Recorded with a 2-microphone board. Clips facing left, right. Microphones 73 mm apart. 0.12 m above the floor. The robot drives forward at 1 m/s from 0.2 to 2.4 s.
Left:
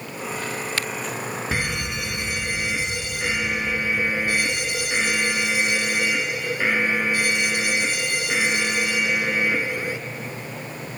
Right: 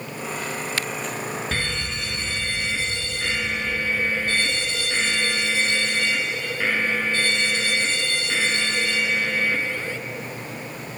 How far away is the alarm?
About 1.0 m.